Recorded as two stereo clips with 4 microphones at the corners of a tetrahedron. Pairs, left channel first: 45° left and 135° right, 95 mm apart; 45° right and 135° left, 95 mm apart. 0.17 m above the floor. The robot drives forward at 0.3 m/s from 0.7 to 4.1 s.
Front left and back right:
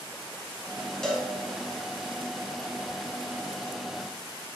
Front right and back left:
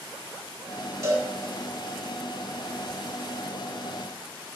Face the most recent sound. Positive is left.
turn(degrees=165)